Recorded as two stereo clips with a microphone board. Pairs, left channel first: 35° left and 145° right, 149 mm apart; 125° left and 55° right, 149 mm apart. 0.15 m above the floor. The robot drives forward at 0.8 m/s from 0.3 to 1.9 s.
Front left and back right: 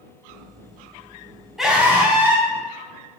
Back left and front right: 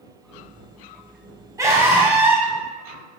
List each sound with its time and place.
1.6 s a scream: 60° right, 1.1 m; by 2.5 s 100° right, 1.1 m